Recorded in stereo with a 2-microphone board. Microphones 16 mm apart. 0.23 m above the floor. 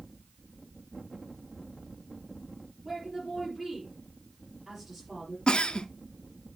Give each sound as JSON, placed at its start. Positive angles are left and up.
{"t": 2.9, "sound": "a woman speaking", "side_deg": -5, "distance_m": 5.5}
{"t": 5.5, "sound": "a giggle", "side_deg": 80, "distance_m": 0.6}